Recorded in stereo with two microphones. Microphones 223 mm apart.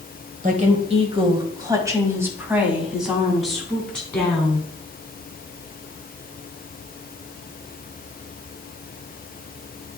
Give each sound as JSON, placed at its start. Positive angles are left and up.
{"t": 0.4, "sound": "a woman speaking", "side_deg": -30, "distance_m": 1.5}